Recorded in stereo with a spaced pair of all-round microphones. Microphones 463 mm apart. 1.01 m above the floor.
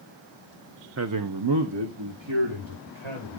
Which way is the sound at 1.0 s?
30° right (ahead or behind).